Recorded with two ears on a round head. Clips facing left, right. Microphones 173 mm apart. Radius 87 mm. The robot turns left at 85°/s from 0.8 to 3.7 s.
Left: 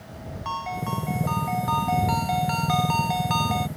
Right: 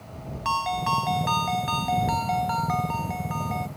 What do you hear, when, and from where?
0.5 s a ringtone: 65° right; by 3.7 s 50° left